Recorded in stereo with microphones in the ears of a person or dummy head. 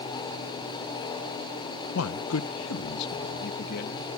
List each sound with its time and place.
1.9 s a man speaking: 75° left (ahead or behind); by 4.1 s 55° left (ahead or behind)